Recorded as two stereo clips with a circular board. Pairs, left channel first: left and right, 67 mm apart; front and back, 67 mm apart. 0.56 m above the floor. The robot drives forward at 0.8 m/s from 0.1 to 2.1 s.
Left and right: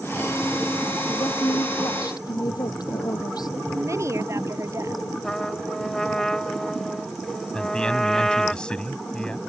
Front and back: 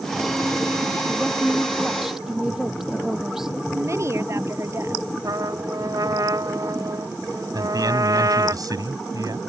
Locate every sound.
1.1 s a woman speaking: 95° left
3.7 s a woman speaking: 135° right
5.2 s a trumpet: 170° left
7.5 s a man speaking: 165° left